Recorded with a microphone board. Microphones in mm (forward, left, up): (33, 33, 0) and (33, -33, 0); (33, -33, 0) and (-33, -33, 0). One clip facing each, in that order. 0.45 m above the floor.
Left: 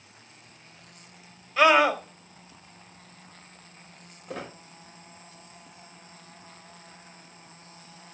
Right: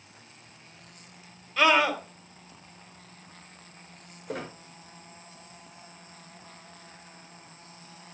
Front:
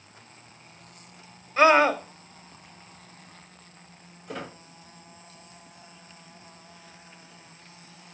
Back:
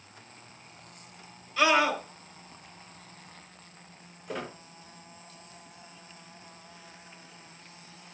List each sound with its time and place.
1.6 s a scream: 10° left, 1.8 m
4.3 s a squeak: 90° right, 8 m